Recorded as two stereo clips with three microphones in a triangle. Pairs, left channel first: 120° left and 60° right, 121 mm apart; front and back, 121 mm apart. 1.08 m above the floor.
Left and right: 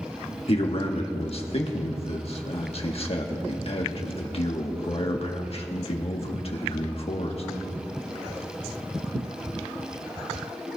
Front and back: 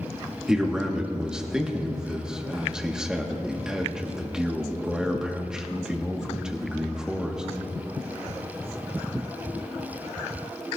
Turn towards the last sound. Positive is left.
turn(degrees=95)